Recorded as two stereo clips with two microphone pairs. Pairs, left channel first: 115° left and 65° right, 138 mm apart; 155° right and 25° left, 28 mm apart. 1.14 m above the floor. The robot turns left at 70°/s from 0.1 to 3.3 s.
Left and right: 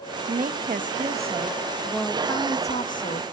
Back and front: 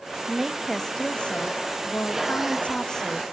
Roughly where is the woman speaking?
Ahead right.